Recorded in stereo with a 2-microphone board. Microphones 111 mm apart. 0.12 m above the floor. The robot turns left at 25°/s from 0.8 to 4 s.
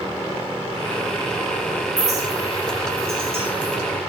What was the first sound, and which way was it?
A clink, 80° right.